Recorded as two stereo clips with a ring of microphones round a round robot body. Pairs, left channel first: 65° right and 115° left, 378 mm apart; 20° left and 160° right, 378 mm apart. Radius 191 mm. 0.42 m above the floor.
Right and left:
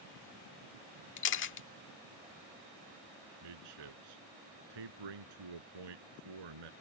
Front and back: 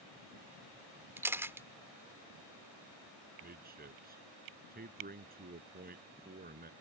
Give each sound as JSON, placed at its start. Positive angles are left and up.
{"t": 1.2, "sound": "a camera shutter", "azimuth_deg": -80}
{"t": 3.4, "sound": "a man speaking", "azimuth_deg": 135}